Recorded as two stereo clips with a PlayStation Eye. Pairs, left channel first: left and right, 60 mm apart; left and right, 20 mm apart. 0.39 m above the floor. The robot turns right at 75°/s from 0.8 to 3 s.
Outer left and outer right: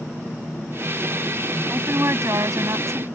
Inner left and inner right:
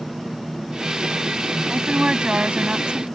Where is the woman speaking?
155° right; by 3.1 s 55° right.